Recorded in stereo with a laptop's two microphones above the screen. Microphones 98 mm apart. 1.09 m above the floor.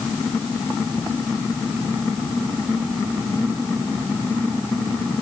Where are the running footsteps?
I don't hear running footsteps.